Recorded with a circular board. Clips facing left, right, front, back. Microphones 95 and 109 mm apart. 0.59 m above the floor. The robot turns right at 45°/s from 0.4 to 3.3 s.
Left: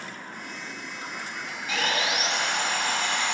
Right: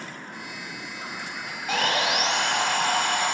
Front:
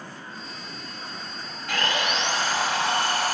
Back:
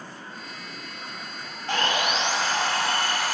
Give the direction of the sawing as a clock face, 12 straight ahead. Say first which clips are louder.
Right 3 dB, back 1 dB; 4 o'clock.